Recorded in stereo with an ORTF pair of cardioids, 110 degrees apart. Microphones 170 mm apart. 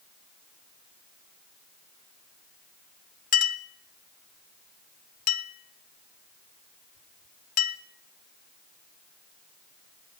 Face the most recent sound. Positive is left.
turn(degrees=50)